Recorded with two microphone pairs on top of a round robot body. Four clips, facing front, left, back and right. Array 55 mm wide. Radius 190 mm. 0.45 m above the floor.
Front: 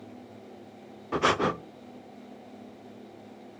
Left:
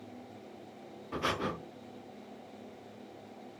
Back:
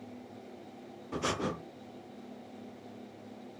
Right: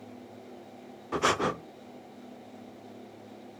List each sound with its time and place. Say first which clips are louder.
1.1 s breathing: right 7 dB, front 9 dB; 35° right, 0.5 m